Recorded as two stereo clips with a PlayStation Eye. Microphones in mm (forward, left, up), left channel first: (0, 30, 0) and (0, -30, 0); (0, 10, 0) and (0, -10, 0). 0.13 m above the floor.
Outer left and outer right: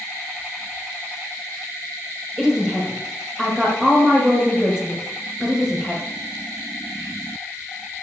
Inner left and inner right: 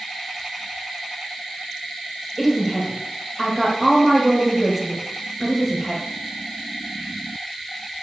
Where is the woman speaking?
Centre (ahead or behind), 2.5 m.